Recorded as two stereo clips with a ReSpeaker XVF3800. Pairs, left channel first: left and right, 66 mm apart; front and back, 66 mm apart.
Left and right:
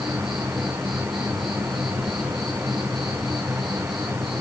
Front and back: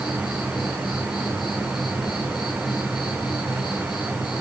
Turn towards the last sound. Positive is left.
turn(degrees=0)